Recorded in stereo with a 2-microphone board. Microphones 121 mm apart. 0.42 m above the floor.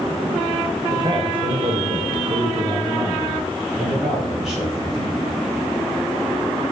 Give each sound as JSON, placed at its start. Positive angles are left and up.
{"t": 0.9, "sound": "a man speaking", "side_deg": -40, "distance_m": 1.4}